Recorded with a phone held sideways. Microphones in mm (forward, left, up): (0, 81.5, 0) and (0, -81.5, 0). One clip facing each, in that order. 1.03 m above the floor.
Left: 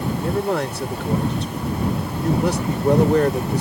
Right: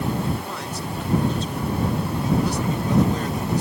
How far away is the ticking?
No ticking in this recording.